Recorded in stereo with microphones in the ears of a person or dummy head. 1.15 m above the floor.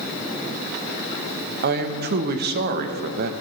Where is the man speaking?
55° right (ahead or behind), 0.9 m.